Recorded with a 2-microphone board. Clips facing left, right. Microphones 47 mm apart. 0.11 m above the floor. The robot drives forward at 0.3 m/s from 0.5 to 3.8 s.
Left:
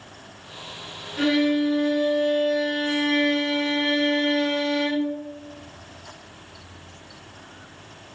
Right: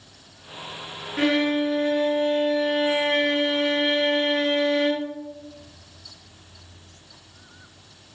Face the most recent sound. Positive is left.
turn(degrees=-25)  # may be behind; listen again after turning